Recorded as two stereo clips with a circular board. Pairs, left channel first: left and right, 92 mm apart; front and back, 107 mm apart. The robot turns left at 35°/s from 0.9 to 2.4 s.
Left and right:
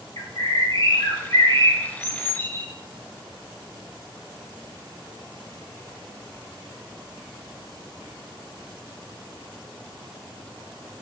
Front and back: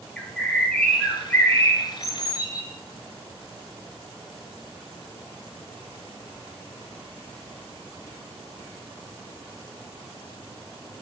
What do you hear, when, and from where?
0.2 s a bird: 80° left, 0.5 m; by 2.7 s 30° left, 0.5 m